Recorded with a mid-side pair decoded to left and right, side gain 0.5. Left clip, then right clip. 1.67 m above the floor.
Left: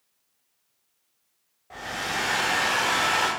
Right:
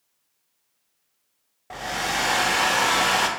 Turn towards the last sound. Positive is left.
turn(degrees=-55)